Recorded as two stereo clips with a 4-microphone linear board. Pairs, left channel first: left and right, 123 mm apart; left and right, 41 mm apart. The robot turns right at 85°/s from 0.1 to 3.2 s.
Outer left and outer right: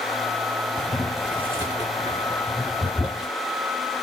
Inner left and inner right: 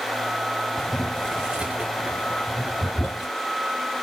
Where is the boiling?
15° left (ahead or behind), 2 m; by 3.3 s centre (ahead or behind), 2 m.